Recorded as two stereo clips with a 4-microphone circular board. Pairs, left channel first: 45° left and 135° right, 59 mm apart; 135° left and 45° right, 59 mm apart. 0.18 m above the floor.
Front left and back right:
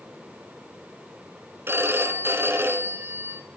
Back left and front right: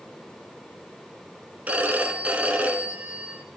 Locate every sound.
1.7 s a phone ringing: 105° right, 1.6 m